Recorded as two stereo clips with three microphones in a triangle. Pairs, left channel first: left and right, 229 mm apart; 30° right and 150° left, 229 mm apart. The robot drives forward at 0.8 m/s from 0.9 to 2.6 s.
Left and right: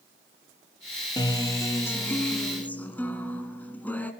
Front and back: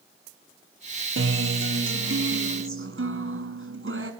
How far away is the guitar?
About 0.7 m.